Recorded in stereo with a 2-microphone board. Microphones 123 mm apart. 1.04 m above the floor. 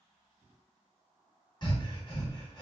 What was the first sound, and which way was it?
Breathing, 40° left (ahead or behind).